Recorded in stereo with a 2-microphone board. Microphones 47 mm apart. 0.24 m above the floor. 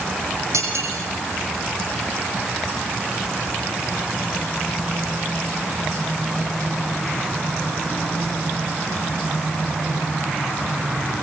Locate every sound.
0.5 s cutlery clinking: 80° right, 8 m